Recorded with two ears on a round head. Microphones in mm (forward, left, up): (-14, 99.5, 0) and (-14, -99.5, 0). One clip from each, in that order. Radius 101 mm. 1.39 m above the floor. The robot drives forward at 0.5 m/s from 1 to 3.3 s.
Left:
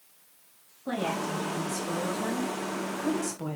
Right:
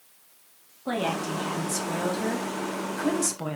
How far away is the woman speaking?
About 3 m.